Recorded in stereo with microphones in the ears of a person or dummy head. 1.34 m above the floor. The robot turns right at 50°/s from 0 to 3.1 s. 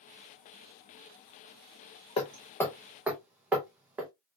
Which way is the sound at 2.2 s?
25° left (ahead or behind).